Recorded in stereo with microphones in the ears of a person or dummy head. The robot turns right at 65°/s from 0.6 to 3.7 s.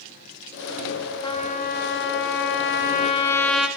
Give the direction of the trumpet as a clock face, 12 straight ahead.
11 o'clock.